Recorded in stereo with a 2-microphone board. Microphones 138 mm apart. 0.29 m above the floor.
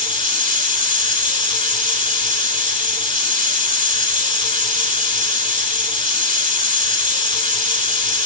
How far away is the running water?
About 1.0 m.